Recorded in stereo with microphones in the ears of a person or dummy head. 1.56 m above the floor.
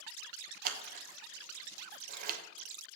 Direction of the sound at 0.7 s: 50° right (ahead or behind).